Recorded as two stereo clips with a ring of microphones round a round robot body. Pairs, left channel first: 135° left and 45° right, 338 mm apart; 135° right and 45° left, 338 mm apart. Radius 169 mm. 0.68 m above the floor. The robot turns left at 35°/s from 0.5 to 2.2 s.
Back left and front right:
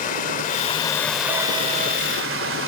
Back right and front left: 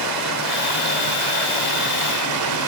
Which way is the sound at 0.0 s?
70° left.